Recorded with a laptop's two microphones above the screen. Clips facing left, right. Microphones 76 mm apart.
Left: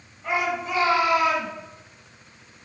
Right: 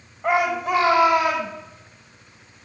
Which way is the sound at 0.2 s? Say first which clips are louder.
Right 5 dB; 65° right (ahead or behind).